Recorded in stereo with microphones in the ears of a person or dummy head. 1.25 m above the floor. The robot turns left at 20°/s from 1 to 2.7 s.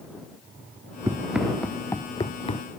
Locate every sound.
1.1 s running footsteps: 10° right (ahead or behind); by 2.6 s 25° left (ahead or behind)